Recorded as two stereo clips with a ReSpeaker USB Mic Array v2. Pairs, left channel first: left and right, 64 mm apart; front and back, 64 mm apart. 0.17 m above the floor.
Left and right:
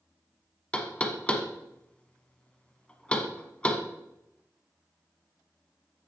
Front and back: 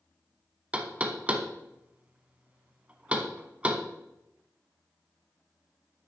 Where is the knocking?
140° left, 0.8 m.